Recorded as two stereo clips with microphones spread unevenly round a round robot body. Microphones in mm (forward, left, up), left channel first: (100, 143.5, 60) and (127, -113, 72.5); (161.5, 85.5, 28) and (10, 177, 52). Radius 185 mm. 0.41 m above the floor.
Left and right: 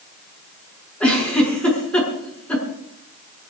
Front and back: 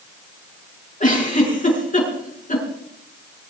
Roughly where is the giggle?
Ahead.